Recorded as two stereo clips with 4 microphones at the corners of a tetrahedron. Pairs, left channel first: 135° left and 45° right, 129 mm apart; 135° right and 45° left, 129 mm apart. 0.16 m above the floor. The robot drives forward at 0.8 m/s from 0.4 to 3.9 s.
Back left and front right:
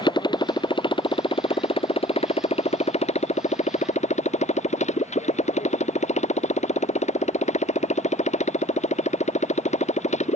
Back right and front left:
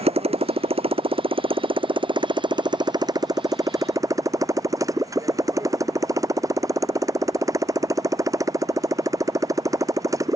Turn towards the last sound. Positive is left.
turn(degrees=110)